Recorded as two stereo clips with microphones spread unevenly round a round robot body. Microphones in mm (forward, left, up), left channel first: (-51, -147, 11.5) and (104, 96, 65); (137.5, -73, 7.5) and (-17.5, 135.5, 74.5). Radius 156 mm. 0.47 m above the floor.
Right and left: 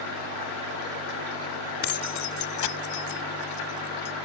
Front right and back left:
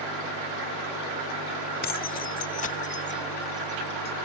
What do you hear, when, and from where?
1.8 s keys jangling: 95° right; by 4.1 s 120° right